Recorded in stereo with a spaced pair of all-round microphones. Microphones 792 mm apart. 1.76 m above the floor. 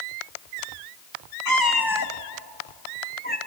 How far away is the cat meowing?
About 1.4 m.